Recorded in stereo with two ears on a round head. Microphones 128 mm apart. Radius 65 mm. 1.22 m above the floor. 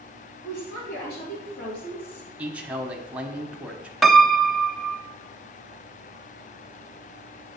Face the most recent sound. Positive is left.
turn(degrees=0)  # may be behind; listen again after turning